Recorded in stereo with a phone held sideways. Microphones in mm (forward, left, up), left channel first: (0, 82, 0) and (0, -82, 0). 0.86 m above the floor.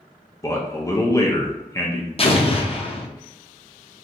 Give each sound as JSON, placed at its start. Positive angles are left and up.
{"t": 0.4, "sound": "a man speaking", "side_deg": 20, "distance_m": 0.5}
{"t": 2.2, "sound": "an explosion", "side_deg": 40, "distance_m": 0.5}